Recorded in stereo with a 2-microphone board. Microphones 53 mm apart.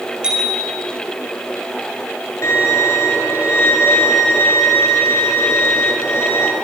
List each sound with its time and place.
0.2 s a bicycle bell: 15° right (ahead or behind), 6 m
2.4 s a violin: 55° left (ahead or behind), 6.5 m